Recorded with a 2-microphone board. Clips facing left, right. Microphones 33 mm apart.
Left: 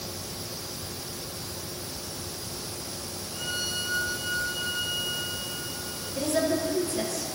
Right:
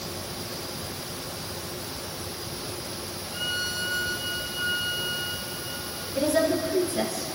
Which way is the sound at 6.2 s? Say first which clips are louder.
Right 3 dB; 20° right (ahead or behind).